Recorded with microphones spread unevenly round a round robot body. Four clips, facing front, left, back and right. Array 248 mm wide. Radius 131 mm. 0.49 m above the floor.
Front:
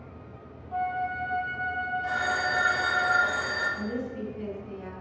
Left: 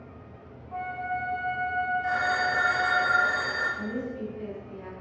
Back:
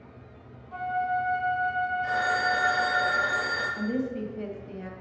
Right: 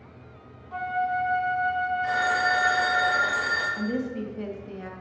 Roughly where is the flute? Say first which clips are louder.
Right 5 dB, back 2 dB; right.